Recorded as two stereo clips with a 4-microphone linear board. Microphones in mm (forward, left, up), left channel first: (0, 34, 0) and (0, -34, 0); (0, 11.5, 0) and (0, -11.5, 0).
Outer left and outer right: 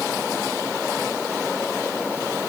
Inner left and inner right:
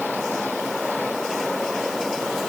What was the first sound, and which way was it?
Only background noise.